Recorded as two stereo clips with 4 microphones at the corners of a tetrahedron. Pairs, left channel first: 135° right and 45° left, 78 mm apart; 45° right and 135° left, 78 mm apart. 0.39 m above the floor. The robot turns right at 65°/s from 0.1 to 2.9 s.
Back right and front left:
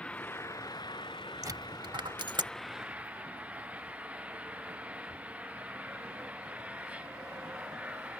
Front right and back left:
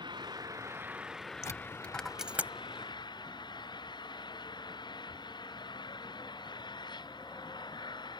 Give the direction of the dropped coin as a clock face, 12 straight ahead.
12 o'clock.